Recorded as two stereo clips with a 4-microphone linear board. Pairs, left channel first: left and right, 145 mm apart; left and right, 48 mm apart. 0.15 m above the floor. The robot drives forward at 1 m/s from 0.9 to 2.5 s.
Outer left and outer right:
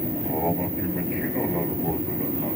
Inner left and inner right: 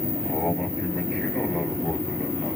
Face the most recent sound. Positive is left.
turn(degrees=0)  # may be behind; listen again after turning